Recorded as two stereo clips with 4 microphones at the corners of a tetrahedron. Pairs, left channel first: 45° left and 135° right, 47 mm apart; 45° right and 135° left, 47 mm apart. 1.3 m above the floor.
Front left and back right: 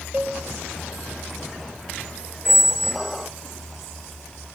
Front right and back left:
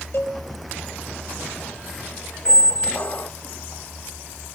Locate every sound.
0.1 s a cowbell: 80° right, 3 m
2.5 s a squeak: 50° right, 0.6 m